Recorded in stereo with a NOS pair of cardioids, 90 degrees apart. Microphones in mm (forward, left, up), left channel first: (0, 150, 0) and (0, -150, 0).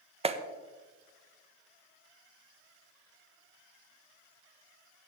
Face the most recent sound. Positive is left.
turn(degrees=-20)